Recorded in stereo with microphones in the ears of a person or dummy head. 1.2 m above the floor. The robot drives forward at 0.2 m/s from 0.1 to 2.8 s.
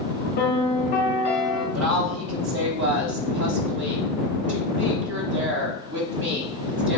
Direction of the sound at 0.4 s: 45° left (ahead or behind).